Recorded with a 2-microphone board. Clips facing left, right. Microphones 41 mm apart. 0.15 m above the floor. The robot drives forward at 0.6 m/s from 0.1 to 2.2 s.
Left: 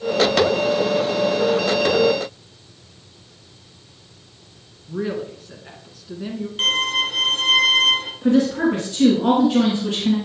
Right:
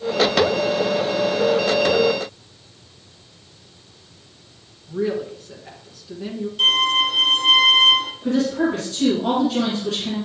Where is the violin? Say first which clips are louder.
Right 3 dB; 40° left (ahead or behind), 1.7 m.